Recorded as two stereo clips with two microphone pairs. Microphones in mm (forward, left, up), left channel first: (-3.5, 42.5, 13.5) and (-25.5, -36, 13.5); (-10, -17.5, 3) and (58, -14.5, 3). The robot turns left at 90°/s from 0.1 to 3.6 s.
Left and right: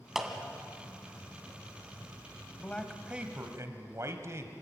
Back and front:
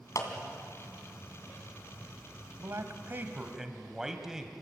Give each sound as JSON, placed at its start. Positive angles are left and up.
{"t": 0.1, "sound": "a clap", "azimuth_deg": 170, "distance_m": 2.5}
{"t": 2.6, "sound": "a man speaking", "azimuth_deg": 15, "distance_m": 1.7}